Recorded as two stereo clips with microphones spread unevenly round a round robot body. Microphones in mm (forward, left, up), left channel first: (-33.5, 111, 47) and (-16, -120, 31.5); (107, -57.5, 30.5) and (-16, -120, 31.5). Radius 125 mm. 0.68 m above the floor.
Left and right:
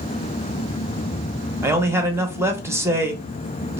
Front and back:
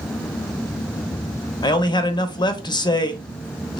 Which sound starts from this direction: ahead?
A man speaking, at 1.6 s.